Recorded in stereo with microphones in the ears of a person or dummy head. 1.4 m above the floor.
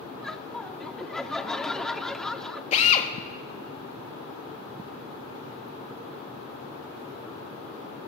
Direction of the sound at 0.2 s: Centre (ahead or behind).